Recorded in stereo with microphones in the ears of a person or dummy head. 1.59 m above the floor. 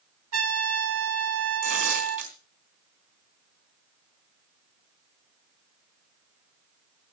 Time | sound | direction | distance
0.3 | a trumpet | 80° right | 1.7 m
1.6 | tearing paper | 50° right (ahead or behind) | 3.5 m